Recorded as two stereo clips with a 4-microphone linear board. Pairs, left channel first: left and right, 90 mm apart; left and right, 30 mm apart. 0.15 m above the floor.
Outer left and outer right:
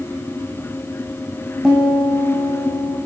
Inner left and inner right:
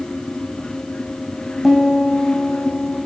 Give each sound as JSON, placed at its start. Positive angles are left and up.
{"t": 1.6, "sound": "a piano", "side_deg": -5, "distance_m": 2.0}